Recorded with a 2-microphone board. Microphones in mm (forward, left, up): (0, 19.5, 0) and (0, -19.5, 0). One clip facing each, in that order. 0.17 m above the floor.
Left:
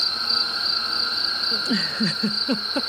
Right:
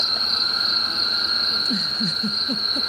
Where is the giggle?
45° left (ahead or behind).